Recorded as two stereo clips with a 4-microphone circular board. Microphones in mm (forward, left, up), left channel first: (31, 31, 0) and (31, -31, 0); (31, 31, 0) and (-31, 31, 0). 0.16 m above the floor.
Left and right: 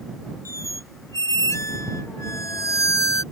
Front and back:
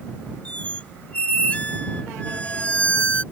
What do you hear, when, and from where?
0.5 s a squeak: 65° left